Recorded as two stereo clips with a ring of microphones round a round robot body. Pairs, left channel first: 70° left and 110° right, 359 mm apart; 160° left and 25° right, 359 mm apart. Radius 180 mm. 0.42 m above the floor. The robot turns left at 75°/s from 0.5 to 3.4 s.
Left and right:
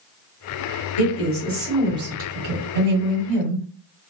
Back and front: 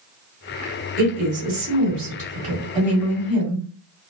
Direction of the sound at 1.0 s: 35° left.